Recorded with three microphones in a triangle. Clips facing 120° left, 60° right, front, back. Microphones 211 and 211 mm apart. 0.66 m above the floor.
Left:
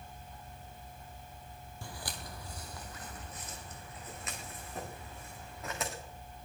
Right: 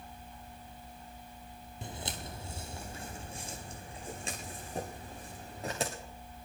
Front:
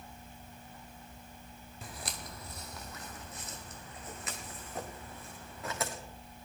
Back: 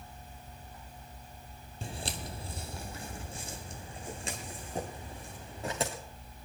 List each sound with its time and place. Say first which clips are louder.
1.8 s footsteps: right 4 dB, back 6 dB; 125° right, 1.1 m; by 5.9 s 120° right, 4 m